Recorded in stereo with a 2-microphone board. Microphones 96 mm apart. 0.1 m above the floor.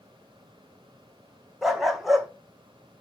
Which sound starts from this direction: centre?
A dog barking, at 1.6 s.